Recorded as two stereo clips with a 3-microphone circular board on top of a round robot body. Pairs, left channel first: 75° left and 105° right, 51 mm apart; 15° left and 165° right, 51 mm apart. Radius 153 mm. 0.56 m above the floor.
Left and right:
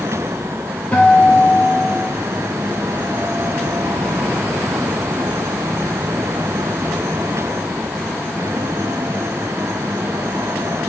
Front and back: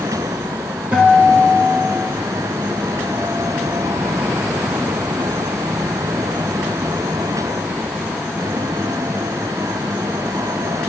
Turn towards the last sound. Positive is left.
turn(degrees=140)